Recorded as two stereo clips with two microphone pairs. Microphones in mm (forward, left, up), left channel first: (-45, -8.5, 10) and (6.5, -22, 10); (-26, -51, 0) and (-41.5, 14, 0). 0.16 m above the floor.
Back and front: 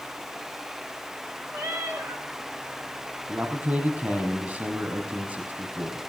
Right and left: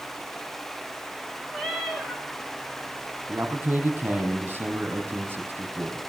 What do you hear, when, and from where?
1.5 s a cat meowing: 10° left, 4 m
3.3 s a man speaking: 40° left, 4.5 m